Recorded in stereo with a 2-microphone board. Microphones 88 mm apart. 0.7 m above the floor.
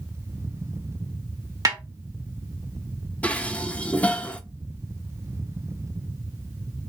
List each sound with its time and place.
1.6 s a snare drum: 40° right (ahead or behind), 1.7 m
3.2 s dishes clattering: 15° left (ahead or behind), 0.7 m